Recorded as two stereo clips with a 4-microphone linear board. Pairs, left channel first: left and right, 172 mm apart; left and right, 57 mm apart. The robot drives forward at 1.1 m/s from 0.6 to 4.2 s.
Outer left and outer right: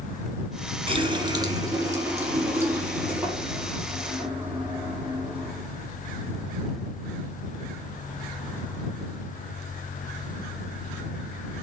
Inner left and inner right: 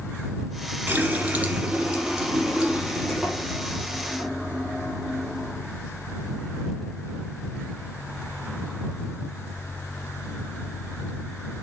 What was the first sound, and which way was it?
A running tap, 35° right (ahead or behind).